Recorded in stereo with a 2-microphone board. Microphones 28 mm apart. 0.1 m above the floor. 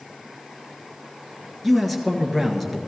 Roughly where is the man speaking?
Centre.